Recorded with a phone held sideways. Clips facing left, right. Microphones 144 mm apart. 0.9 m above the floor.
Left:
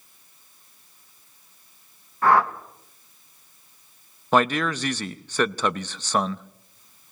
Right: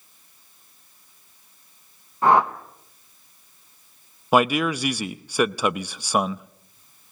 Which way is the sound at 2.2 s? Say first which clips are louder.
Right 1 dB; 20° right (ahead or behind).